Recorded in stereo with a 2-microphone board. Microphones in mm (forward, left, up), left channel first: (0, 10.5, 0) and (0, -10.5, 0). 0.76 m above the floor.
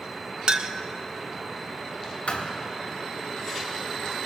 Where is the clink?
45° right (ahead or behind), 0.7 m.